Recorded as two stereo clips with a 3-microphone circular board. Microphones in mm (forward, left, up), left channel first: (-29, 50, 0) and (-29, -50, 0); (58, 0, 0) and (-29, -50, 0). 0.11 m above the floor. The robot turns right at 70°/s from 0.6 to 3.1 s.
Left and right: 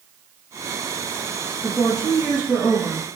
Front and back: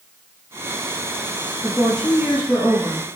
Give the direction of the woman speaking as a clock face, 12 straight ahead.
9 o'clock.